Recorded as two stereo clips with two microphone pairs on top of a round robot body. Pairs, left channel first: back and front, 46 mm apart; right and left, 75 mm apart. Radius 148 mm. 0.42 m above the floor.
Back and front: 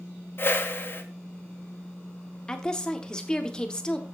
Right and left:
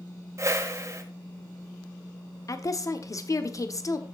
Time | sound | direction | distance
0.4 | a whoosh | 140° left | 1.6 m
2.5 | a woman speaking | 110° right | 1.3 m